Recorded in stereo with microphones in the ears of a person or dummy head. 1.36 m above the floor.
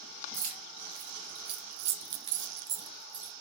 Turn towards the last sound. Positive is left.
turn(degrees=-20)  # may be behind; listen again after turning